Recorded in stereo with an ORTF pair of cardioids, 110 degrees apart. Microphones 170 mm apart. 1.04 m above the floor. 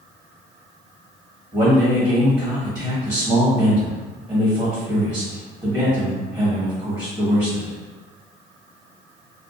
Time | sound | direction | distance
1.5 | a man speaking | 20° right | 1.3 m